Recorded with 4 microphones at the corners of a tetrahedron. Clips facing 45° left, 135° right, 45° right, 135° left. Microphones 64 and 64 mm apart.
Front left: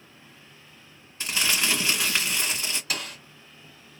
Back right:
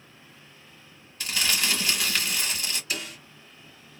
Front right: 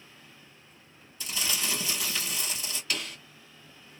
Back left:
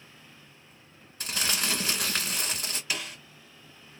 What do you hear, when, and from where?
1.2 s crumpling: 110° left, 1.4 m
2.9 s a snare drum: 60° left, 1.9 m